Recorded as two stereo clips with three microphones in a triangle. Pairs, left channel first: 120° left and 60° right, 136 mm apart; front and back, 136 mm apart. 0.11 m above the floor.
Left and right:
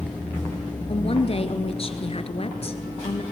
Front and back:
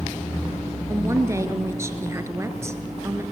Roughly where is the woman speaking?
Behind left.